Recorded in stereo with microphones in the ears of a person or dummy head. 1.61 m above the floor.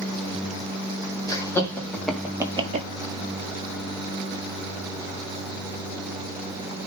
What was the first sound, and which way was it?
Laughter, 20° left (ahead or behind).